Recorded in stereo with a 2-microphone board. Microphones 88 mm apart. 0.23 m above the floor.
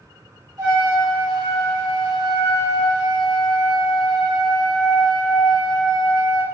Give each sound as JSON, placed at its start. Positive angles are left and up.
{"t": 0.6, "sound": "a trumpet", "side_deg": -50, "distance_m": 0.7}